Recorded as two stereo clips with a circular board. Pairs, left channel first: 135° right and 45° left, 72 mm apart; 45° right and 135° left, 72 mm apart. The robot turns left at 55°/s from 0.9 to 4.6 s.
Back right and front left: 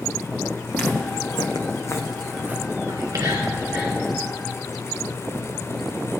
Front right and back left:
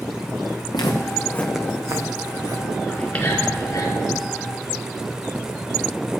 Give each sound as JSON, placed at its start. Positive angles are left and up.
{"t": 0.7, "sound": "footsteps", "azimuth_deg": -65, "distance_m": 1.6}
{"t": 2.9, "sound": "whispering", "azimuth_deg": 40, "distance_m": 3.0}